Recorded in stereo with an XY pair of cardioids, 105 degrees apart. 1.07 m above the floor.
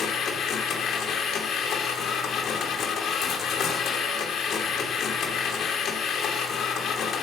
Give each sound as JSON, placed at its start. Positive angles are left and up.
{"t": 0.0, "sound": "a machine running", "azimuth_deg": 65, "distance_m": 2.5}